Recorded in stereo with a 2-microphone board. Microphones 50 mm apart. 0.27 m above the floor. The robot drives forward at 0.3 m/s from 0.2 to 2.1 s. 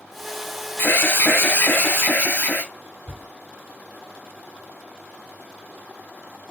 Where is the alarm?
45° left (ahead or behind), 0.9 m; by 2.7 s 40° left (ahead or behind), 1.0 m.